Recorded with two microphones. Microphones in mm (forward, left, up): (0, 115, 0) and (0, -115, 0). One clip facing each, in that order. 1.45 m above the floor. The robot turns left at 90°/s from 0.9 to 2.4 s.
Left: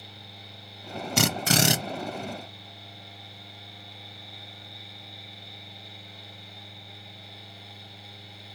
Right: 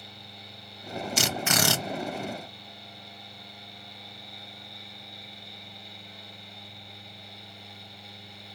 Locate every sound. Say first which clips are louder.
1.2 s a drill: left 5 dB; 65° left, 0.6 m; by 1.8 s 10° left, 0.6 m